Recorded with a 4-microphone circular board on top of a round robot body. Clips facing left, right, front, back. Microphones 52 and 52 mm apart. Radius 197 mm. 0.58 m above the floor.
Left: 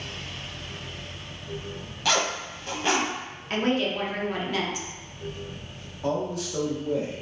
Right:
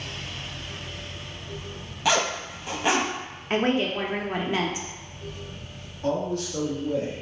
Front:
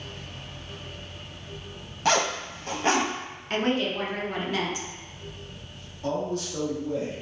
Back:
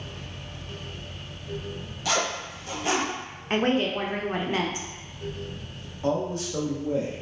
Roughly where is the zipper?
Ahead.